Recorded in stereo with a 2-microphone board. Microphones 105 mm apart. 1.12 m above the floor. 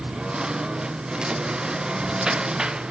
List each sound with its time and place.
0.0 s a lawn mower: 10° right (ahead or behind)